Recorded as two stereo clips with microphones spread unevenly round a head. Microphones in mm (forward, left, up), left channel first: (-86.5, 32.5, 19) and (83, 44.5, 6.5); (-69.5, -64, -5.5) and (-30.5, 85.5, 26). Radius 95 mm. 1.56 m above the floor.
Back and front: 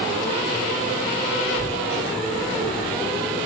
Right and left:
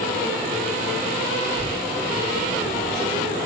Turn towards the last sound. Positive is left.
turn(degrees=-105)